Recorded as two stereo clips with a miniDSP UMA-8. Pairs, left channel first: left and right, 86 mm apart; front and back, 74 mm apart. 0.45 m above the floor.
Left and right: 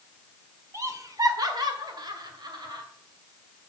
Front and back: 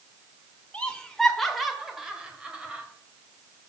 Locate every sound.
0.7 s laughter: 65° right, 1.4 m; by 2.9 s 110° right, 2.5 m